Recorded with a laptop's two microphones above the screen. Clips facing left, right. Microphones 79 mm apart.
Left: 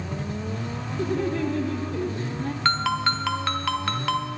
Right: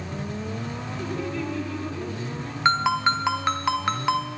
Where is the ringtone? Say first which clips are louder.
Right 3 dB; 20° right (ahead or behind), 0.6 m.